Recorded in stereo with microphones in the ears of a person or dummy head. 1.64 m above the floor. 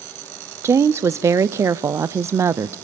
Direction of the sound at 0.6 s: 10° right (ahead or behind).